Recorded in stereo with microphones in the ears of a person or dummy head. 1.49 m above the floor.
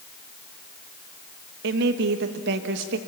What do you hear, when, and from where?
1.6 s a woman speaking: 55° right (ahead or behind), 1.5 m